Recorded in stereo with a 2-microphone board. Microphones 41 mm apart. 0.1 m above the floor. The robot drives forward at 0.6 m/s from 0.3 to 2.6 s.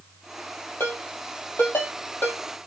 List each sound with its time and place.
0.8 s a ringtone: 65° left (ahead or behind), 2 m; by 2.4 s 50° left (ahead or behind), 2.5 m